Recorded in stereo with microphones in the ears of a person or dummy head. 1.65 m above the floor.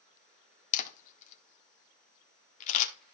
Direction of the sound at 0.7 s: 45° left (ahead or behind).